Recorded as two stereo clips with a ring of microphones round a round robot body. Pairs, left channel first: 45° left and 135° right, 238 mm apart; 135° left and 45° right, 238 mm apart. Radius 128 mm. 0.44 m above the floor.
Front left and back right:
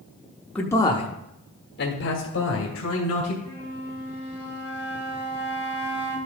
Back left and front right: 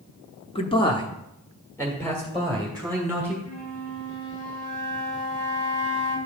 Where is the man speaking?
120° left, 1.2 m; by 3.4 s 45° left, 2.5 m.